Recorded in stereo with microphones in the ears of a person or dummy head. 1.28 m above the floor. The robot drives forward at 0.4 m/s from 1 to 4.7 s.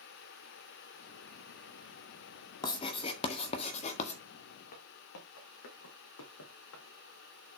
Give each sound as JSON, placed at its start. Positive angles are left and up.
{"t": 2.6, "sound": "writing", "side_deg": 25, "distance_m": 1.8}
{"t": 4.7, "sound": "footsteps", "side_deg": 45, "distance_m": 3.5}